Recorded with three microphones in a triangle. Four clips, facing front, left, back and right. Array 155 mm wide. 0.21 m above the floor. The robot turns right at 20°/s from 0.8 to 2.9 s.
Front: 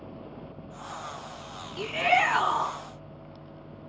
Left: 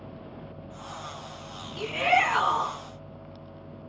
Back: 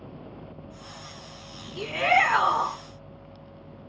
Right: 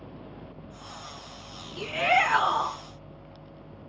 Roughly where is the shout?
Behind.